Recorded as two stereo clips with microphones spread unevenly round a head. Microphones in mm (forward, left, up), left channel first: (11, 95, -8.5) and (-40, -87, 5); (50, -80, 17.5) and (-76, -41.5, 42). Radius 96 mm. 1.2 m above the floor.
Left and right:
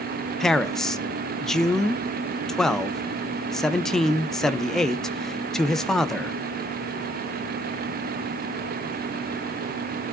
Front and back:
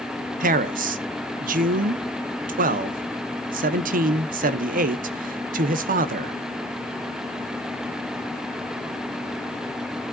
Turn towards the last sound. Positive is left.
turn(degrees=160)